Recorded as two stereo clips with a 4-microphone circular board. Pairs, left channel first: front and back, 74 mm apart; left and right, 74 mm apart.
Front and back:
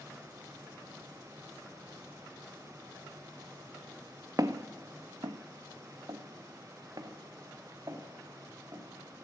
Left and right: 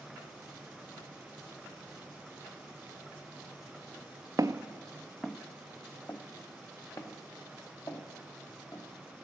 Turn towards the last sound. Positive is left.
turn(degrees=130)